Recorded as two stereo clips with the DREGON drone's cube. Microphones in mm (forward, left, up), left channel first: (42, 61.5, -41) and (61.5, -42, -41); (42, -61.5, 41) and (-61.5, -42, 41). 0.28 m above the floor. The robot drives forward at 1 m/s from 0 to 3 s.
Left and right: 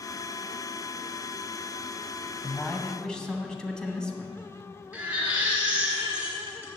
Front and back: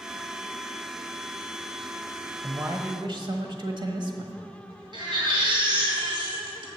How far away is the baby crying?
About 2.5 m.